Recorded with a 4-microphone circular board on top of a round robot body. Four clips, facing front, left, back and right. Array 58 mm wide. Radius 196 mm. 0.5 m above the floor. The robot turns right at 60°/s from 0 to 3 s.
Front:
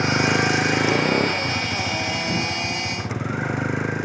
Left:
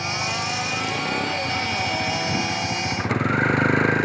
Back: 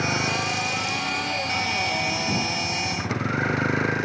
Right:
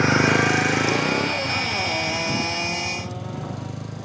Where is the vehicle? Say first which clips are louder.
Right 8 dB, front 5 dB; 85° right; by 4.0 s 95° left.